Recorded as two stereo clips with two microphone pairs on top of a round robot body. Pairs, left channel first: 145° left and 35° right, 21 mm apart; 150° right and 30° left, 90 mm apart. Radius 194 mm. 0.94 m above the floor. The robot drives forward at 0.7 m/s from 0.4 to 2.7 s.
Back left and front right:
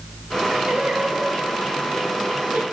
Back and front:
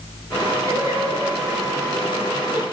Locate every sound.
0.7 s singing: 20° right, 3 m; by 2.6 s 40° right, 1.7 m